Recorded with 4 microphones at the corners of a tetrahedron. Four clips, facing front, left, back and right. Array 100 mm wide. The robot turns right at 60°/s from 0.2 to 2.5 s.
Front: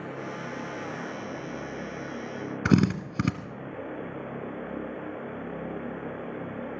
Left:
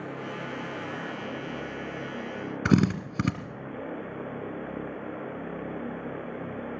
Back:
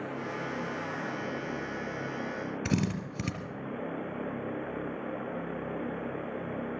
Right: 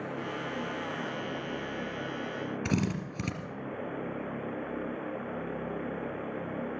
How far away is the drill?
About 2 m.